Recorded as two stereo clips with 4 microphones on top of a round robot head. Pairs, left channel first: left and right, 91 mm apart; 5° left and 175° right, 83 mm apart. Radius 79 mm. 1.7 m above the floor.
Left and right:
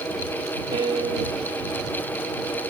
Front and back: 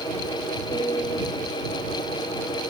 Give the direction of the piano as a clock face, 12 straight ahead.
2 o'clock.